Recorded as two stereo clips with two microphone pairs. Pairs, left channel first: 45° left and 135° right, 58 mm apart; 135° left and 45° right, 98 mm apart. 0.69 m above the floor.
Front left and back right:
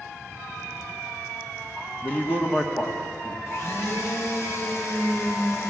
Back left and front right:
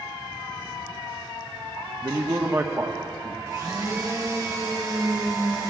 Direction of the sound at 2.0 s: 5° left.